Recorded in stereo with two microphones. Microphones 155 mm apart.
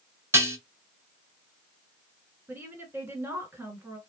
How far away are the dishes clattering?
About 0.9 m.